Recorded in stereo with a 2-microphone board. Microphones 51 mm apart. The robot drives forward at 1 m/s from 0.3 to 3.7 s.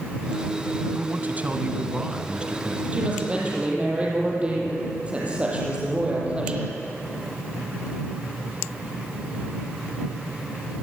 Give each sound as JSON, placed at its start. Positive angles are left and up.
{"t": 0.9, "sound": "a man speaking", "side_deg": -40, "distance_m": 1.4}
{"t": 2.9, "sound": "a woman speaking", "side_deg": -25, "distance_m": 6.5}